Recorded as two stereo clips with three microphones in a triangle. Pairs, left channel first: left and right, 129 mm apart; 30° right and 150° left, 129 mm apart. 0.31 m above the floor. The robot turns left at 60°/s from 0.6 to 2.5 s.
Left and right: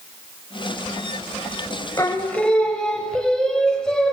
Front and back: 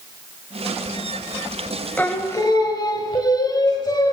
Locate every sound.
2.0 s singing: 40° left, 0.9 m; by 4.1 s 10° left, 0.9 m